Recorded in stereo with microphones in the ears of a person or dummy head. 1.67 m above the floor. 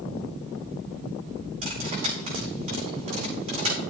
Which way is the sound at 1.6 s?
40° right (ahead or behind).